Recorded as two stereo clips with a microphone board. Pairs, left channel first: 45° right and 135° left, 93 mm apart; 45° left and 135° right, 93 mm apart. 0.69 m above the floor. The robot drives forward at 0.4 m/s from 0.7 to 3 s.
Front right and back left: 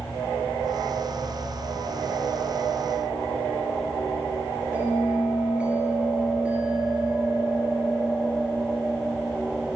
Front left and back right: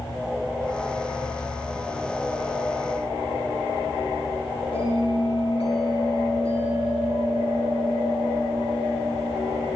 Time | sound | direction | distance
4.7 | a bell | 60° left | 3.5 m